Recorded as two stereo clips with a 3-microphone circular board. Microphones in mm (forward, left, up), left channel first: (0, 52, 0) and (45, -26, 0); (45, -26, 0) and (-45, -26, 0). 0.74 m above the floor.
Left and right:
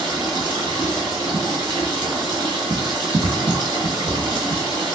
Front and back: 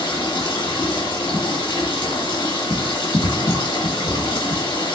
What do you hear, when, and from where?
0.0 s running water: 35° right, 1.4 m